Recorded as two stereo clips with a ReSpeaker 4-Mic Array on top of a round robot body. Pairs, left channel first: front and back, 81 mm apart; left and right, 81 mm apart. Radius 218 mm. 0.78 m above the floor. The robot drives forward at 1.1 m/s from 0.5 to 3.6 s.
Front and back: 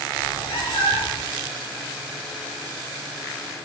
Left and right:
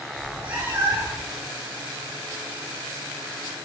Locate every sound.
0.2 s a cat meowing: 25° right, 4.5 m; by 1.3 s 30° right, 3.5 m